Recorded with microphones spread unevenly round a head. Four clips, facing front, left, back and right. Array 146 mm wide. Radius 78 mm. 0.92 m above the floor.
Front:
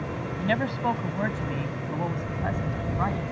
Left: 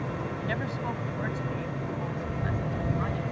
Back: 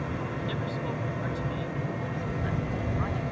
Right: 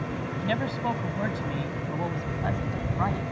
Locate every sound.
0.4 s a man speaking: 25° right; by 3.3 s 50° right